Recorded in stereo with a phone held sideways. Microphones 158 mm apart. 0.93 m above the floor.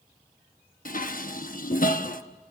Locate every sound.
0.8 s dishes clattering: 60° left (ahead or behind), 1.0 m